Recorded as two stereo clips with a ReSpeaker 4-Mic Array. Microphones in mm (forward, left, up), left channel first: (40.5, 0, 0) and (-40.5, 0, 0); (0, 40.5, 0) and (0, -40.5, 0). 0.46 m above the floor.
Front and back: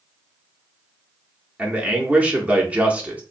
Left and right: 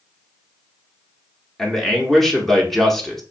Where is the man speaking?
170° left, 0.8 m.